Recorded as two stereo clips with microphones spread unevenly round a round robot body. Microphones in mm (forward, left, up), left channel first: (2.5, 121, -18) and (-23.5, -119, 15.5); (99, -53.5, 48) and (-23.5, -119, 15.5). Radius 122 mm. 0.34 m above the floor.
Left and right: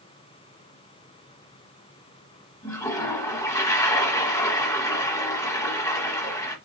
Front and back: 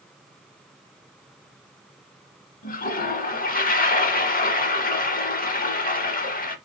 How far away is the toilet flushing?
About 1.0 m.